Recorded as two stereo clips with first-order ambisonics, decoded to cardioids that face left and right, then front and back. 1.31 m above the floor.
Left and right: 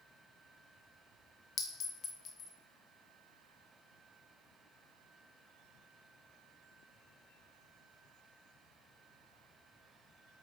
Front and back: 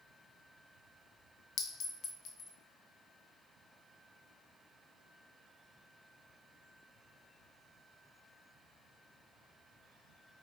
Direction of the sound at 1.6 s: 40° left.